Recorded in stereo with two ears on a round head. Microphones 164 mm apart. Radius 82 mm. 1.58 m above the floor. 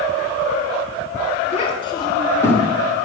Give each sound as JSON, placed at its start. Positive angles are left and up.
{"t": 1.5, "sound": "a child speaking", "side_deg": 35, "distance_m": 1.8}